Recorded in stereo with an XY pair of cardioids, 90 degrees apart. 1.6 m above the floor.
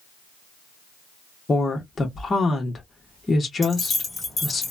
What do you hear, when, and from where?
1.5 s a woman speaking: 35° left, 1.2 m
3.6 s keys jangling: 30° left, 1.7 m